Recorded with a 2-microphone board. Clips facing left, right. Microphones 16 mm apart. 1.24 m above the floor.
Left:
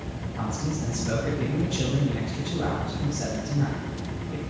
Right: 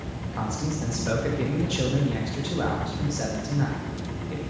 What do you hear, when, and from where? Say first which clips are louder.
0.3 s a man speaking: right 1 dB; 60° right (ahead or behind), 1.7 m